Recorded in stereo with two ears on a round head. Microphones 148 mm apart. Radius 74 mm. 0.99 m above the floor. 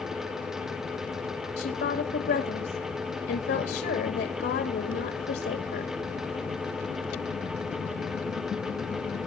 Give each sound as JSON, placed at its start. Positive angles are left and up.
{"t": 1.6, "sound": "a woman speaking", "side_deg": 70, "distance_m": 2.5}